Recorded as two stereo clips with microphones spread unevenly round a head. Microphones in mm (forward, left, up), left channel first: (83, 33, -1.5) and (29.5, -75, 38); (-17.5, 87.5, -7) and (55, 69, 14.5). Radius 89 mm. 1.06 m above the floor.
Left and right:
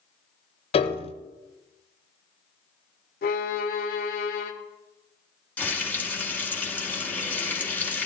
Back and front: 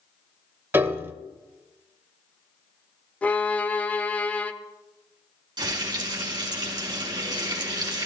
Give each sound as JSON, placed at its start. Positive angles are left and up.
{"t": 0.7, "sound": "a piano", "azimuth_deg": 20, "distance_m": 1.1}
{"t": 3.2, "sound": "a violin", "azimuth_deg": 85, "distance_m": 0.9}
{"t": 5.6, "sound": "frying", "azimuth_deg": -15, "distance_m": 3.0}